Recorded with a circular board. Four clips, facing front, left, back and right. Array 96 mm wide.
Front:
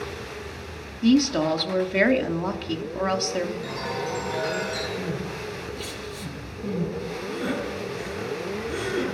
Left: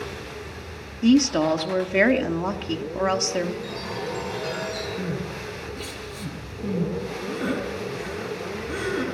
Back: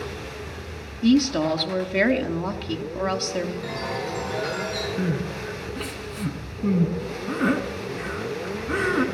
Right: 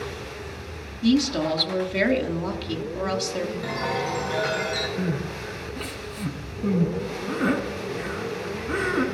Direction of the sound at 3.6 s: 105° right.